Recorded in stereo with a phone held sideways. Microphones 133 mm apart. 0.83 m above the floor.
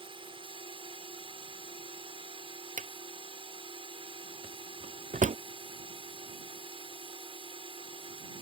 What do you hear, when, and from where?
0.0 s a drone: 40° right (ahead or behind)
2.8 s a drawer: 65° right (ahead or behind)